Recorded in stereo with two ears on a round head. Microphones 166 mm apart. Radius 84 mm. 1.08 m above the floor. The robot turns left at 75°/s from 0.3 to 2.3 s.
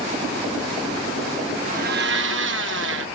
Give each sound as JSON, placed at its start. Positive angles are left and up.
{"t": 1.6, "sound": "a blender", "azimuth_deg": -40}